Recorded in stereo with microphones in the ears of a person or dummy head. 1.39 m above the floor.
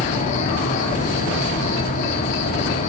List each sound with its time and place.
0.0 s an insect: 40° left (ahead or behind), 2.5 m